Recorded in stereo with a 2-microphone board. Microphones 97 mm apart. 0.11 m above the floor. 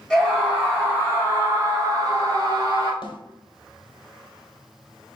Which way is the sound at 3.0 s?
50° left (ahead or behind).